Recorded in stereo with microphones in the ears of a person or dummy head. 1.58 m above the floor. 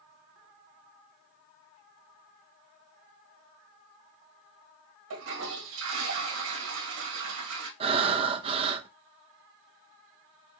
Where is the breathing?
30° right (ahead or behind), 0.7 m.